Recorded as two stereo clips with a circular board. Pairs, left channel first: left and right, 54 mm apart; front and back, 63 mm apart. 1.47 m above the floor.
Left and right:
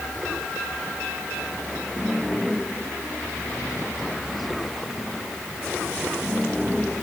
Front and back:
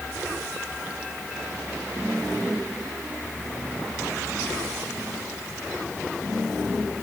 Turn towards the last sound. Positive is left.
No sound to turn to.